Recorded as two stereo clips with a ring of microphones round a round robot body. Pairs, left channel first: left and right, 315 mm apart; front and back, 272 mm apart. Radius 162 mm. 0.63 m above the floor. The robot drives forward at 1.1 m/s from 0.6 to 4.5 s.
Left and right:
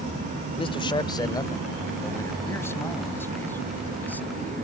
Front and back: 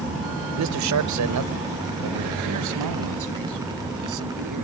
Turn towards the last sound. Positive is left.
turn(degrees=175)